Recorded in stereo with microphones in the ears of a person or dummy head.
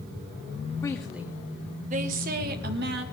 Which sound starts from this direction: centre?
A woman speaking, at 0.8 s.